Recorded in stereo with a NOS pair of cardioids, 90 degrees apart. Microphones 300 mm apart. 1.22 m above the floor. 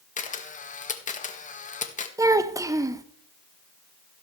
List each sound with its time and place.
0.2 s a camera shutter: 25° left, 1.4 m
2.2 s a child speaking: 10° right, 0.9 m